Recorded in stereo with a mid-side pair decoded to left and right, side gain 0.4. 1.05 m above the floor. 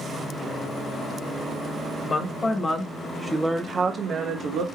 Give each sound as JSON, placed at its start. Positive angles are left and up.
{"t": 2.0, "sound": "a woman speaking", "azimuth_deg": 50, "distance_m": 1.5}